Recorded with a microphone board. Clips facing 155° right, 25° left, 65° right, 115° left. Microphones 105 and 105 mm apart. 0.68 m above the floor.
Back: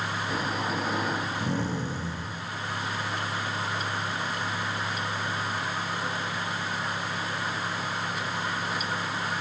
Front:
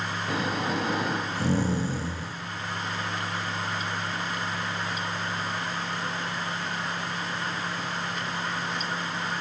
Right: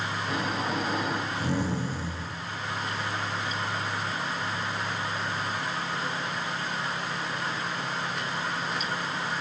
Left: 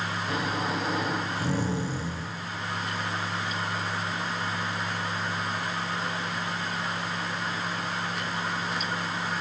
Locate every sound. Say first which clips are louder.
0.3 s snoring: front 3 dB, even; 25° left, 5 m